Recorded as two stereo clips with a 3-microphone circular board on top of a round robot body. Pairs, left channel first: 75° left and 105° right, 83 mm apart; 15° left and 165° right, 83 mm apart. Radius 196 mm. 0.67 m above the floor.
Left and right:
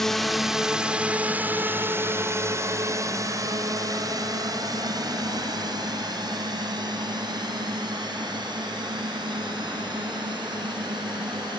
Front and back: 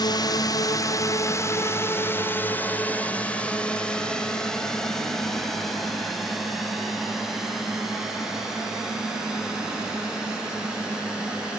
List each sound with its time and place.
0.0 s a drone: 10° right; by 11.6 s 85° right